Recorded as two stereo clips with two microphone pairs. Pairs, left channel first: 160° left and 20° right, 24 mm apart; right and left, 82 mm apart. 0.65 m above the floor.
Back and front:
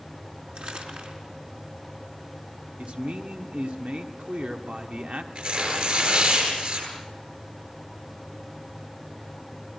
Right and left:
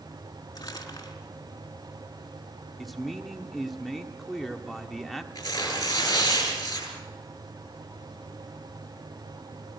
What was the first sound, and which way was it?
Crumpling, 45° right.